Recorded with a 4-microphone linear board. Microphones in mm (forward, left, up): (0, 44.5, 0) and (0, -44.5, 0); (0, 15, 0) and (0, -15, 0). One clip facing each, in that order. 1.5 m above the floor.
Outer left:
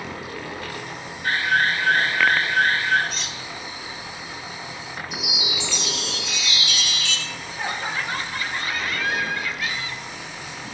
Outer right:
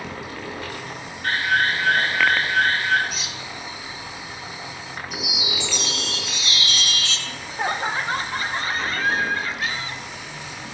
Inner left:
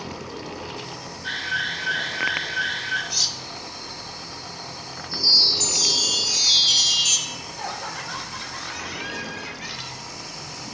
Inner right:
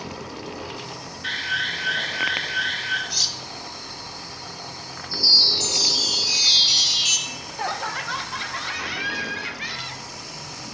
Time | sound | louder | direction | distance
1.2 | an alarm | even, inner right 1 dB | 65° right (ahead or behind) | 7.5 m
3.1 | cutlery clinking | even, even | 5° right (ahead or behind) | 1.1 m
5.1 | a chime | outer right 2 dB, inner right 1 dB | 45° right (ahead or behind) | 7.5 m
7.3 | laughter | outer right 7 dB, inner right 3 dB | 35° right (ahead or behind) | 1.0 m